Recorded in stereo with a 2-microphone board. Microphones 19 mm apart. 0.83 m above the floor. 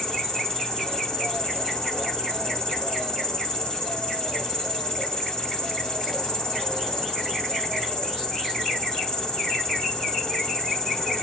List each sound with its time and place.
0.0 s an insect: 30° left (ahead or behind), 3.5 m